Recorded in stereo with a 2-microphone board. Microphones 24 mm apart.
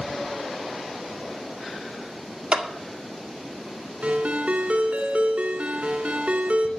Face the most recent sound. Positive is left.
turn(degrees=-80)